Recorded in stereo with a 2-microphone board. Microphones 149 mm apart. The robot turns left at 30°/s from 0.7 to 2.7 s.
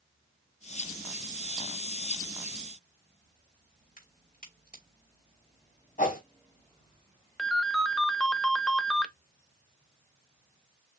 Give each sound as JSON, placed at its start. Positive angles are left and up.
{"t": 4.0, "sound": "a crack", "side_deg": 85, "distance_m": 3.0}
{"t": 6.0, "sound": "a whoosh", "side_deg": 65, "distance_m": 2.0}
{"t": 7.4, "sound": "a ringtone", "side_deg": 5, "distance_m": 0.6}